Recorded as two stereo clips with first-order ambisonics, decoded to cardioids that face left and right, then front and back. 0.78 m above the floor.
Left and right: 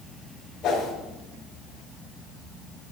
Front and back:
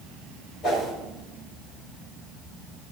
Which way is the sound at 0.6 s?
45° left.